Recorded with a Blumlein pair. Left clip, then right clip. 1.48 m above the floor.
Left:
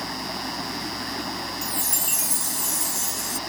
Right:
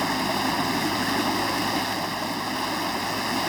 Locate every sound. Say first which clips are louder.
0.0 s running water: right 6 dB; 20° right
1.6 s a chime: right 3 dB; 45° left